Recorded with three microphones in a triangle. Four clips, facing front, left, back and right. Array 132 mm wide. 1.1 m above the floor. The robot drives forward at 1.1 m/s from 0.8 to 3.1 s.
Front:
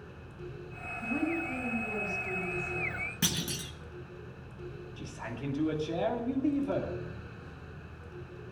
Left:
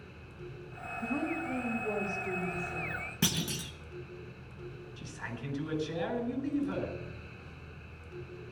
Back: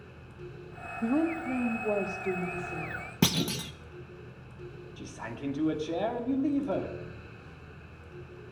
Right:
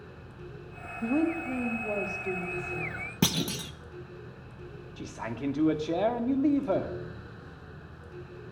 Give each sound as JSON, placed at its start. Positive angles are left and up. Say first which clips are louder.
{"t": 1.0, "sound": "a woman speaking", "louder": "right 7 dB, back 5 dB", "azimuth_deg": -135, "distance_m": 2.0}
{"t": 3.2, "sound": "a clunk", "louder": "right 6 dB, back 9 dB", "azimuth_deg": -150, "distance_m": 1.0}
{"t": 5.0, "sound": "a man speaking", "louder": "right 9 dB, back 2 dB", "azimuth_deg": -95, "distance_m": 2.5}